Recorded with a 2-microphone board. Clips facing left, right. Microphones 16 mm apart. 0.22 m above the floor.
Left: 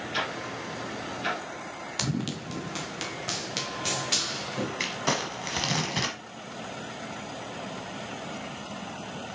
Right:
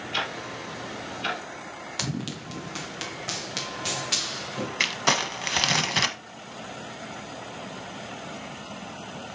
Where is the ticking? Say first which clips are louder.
Right 2 dB; 25° right (ahead or behind), 4 m.